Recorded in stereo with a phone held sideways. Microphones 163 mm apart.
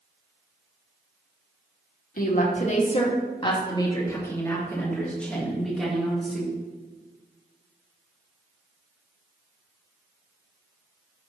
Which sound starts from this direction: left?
A woman speaking, at 2.2 s.